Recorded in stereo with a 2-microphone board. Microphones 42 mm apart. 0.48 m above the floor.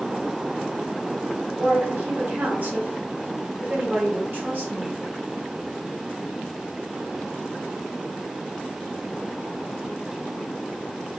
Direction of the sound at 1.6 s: 50° right (ahead or behind).